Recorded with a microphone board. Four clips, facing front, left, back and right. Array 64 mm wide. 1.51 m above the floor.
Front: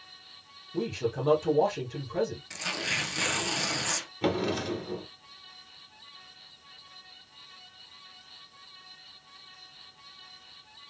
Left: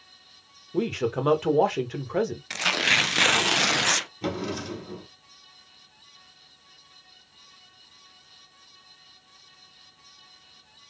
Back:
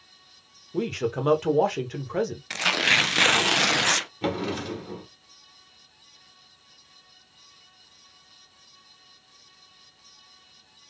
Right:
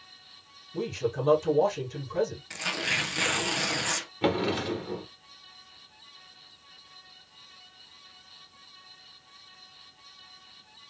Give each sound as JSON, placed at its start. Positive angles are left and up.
{"t": 0.7, "sound": "a man speaking", "azimuth_deg": 120, "distance_m": 1.6}
{"t": 2.5, "sound": "tearing paper", "azimuth_deg": 145, "distance_m": 0.5}
{"t": 4.2, "sound": "a drawer", "azimuth_deg": -90, "distance_m": 1.2}